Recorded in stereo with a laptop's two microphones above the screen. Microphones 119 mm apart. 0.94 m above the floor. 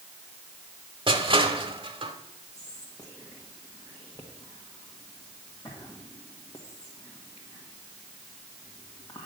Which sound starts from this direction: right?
Crushing, at 1.1 s.